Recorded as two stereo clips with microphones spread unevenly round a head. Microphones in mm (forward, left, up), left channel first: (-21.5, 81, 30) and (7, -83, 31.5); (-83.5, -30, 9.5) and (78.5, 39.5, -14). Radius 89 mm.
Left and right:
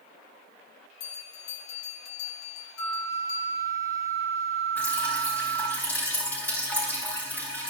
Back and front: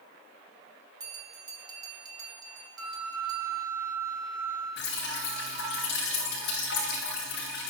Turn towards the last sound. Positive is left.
turn(degrees=180)